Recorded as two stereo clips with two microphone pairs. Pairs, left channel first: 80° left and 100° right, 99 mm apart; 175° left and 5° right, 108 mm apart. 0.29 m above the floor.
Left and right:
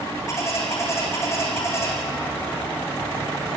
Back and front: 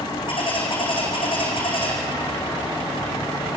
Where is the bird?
140° left, 5.5 m.